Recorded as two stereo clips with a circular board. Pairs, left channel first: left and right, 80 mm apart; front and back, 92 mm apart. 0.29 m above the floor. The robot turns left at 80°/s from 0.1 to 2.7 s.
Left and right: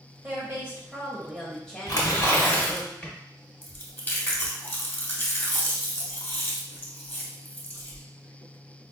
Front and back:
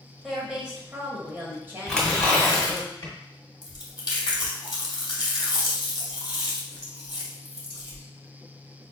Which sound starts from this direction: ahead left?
Chewing, at 3.6 s.